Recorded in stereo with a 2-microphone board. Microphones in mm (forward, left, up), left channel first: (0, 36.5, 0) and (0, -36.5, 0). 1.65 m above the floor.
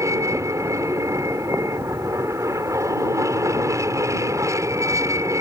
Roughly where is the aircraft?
Right.